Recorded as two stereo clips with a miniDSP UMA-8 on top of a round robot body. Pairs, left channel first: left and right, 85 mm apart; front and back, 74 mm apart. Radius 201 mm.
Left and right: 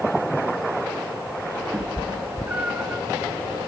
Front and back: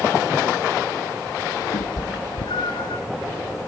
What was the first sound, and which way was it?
A cat meowing, 15° right.